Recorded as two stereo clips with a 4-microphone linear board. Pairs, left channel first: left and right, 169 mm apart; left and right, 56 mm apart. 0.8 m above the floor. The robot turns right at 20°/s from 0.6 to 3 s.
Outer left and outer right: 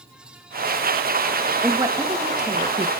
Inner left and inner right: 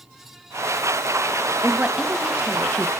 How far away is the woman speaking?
About 1.1 m.